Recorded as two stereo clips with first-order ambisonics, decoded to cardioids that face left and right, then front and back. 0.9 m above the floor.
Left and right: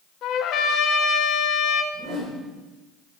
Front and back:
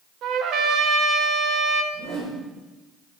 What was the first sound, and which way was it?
A trumpet, 135° left.